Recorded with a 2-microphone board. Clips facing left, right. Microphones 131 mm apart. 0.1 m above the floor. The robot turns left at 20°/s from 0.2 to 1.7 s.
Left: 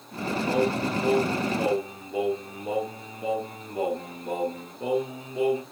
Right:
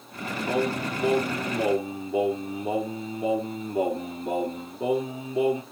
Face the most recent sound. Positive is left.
turn(degrees=-20)  # may be behind; listen again after turning